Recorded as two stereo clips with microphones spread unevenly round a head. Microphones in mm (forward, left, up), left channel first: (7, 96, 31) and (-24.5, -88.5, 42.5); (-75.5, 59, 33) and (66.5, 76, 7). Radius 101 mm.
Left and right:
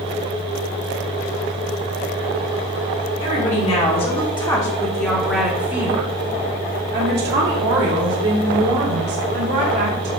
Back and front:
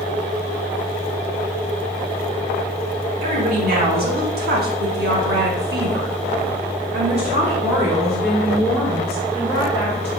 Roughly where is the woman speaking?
Ahead left.